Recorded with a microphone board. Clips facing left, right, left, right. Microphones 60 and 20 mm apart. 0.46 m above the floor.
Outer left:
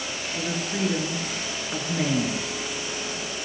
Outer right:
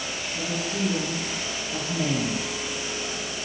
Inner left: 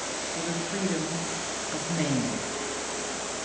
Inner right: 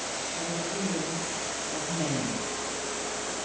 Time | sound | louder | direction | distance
0.3 | a woman speaking | outer left 1 dB, inner left 2 dB | 80° left | 8 m